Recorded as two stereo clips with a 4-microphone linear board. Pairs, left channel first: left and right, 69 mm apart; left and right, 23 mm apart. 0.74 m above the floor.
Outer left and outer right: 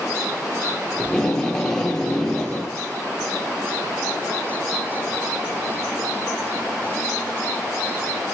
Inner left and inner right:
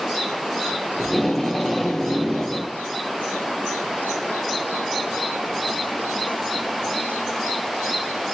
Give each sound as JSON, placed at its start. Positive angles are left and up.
{"t": 1.0, "sound": "tape being pulled", "side_deg": 5, "distance_m": 1.0}